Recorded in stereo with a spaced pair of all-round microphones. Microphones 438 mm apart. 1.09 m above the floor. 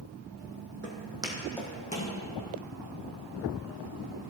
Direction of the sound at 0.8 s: 25° right (ahead or behind).